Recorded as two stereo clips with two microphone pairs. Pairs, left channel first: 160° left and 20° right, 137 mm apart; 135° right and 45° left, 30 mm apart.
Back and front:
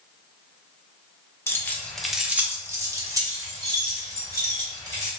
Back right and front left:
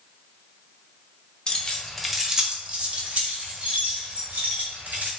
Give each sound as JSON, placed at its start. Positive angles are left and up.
{"t": 1.5, "sound": "keys jangling", "azimuth_deg": -145, "distance_m": 0.6}